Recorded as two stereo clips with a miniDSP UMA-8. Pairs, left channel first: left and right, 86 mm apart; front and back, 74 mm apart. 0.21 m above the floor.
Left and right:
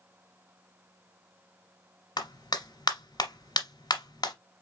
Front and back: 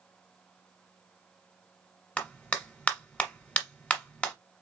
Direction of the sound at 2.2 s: 70° left.